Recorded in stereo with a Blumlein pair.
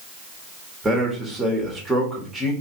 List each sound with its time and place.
0.8 s a man speaking: 5° right, 1.5 m